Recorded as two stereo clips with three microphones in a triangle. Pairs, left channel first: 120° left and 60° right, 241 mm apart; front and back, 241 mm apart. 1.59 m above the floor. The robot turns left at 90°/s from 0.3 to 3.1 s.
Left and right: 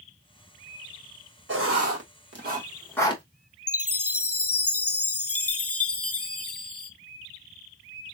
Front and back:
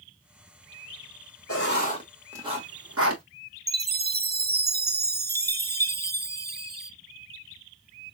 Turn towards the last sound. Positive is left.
turn(degrees=130)